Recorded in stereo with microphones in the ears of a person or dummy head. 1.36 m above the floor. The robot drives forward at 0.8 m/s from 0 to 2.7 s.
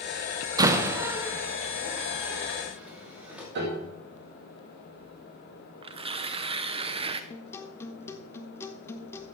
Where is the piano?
55° right (ahead or behind), 2 m.